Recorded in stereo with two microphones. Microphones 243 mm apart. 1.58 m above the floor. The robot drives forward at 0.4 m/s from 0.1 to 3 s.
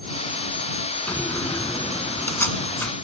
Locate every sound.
1.1 s a door slam: 10° left (ahead or behind)